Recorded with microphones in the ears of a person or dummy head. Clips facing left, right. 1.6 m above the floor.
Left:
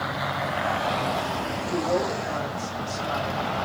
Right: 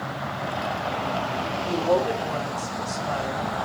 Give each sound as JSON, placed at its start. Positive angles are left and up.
{"t": 1.6, "sound": "a woman speaking", "side_deg": -65, "distance_m": 5.5}